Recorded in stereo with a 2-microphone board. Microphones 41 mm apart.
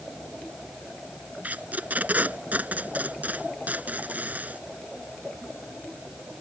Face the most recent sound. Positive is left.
turn(degrees=-40)  # may be behind; listen again after turning